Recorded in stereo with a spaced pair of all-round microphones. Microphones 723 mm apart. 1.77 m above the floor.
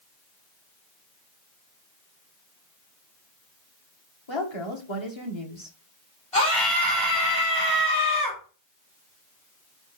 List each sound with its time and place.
4.3 s a woman speaking: 40° left (ahead or behind), 2 m
6.3 s a scream: 45° left (ahead or behind), 4 m